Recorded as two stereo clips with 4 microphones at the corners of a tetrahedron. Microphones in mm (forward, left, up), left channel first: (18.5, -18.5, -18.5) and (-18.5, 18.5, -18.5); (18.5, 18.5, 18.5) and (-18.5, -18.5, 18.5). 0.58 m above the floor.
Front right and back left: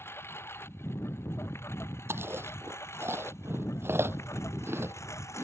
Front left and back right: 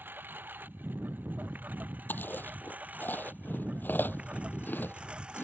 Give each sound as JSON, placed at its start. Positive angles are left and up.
{"t": 0.0, "sound": "a lawn mower", "azimuth_deg": -85}
{"t": 2.1, "sound": "chewing", "azimuth_deg": 95}